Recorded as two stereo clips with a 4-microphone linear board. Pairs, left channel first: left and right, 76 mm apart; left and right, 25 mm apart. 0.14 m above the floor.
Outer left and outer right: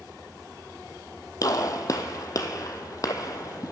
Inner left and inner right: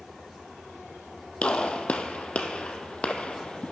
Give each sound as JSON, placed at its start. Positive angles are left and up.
{"t": 1.4, "sound": "a gunshot", "side_deg": 55, "distance_m": 0.8}